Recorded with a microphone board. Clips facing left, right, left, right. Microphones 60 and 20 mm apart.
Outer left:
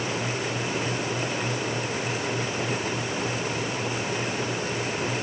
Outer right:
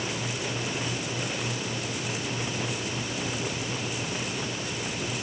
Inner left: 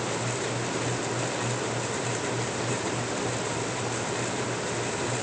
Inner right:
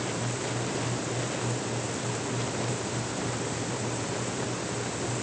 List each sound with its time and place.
Only background noise.